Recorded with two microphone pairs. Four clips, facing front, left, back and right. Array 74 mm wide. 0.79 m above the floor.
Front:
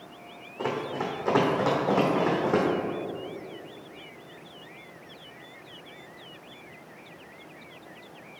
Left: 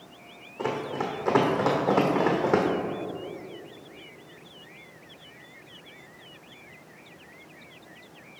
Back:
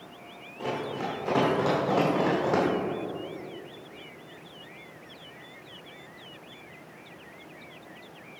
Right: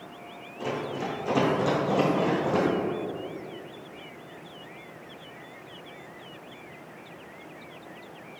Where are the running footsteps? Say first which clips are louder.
Left 2 dB, front 2 dB; 60° left, 2.5 m; by 2.7 s 95° left, 2 m.